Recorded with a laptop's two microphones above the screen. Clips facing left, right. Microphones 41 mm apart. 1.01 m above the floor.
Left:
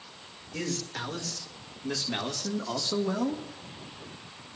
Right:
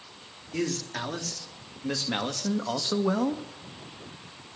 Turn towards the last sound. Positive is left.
turn(degrees=-45)  # may be behind; listen again after turning